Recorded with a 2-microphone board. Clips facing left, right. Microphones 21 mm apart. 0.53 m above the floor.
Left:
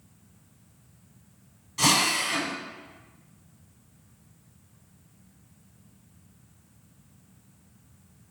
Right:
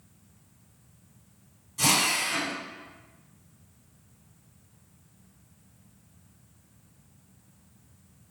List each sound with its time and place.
1.8 s a drill: 30° left (ahead or behind), 1.5 m